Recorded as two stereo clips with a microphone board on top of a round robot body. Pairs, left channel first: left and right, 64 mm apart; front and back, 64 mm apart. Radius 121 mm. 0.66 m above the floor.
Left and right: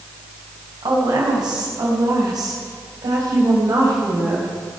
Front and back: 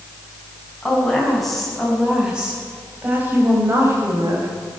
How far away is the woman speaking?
About 6 m.